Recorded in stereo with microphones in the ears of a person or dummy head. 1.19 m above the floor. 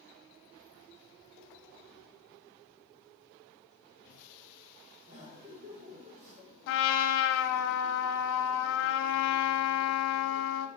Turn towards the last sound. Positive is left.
turn(degrees=60)  # may be behind; listen again after turning